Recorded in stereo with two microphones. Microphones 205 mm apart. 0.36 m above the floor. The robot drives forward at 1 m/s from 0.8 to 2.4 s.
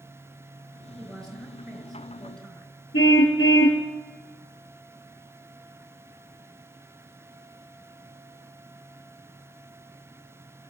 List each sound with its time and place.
1.0 s a woman speaking: 5° left (ahead or behind), 6.5 m
2.9 s a car horn: 85° left, 2.5 m